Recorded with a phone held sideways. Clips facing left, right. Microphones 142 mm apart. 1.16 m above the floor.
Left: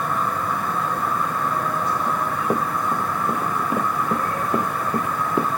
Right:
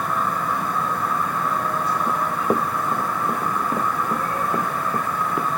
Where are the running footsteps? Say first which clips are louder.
Right 1 dB; 15° right (ahead or behind); by 5.5 s 25° left (ahead or behind).